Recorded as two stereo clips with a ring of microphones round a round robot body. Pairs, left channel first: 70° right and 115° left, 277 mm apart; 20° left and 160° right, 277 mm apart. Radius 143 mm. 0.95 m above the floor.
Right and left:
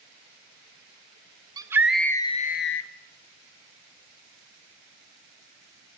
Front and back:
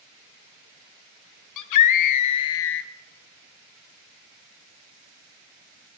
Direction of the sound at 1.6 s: 35° left.